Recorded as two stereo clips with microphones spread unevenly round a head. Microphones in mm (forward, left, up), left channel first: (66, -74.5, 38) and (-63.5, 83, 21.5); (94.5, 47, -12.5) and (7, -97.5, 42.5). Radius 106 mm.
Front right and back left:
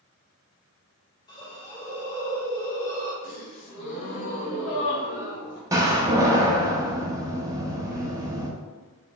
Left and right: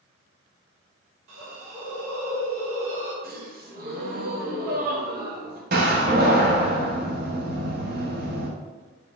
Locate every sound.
1.3 s a hiss: 120° right, 1.4 m
3.2 s a gasp: 85° right, 1.2 m
5.7 s a door slam: 155° right, 0.7 m